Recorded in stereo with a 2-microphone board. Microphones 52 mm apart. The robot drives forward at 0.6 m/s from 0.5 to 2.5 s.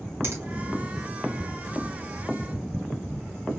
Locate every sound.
0.2 s a finger snap: 50° right (ahead or behind), 2 m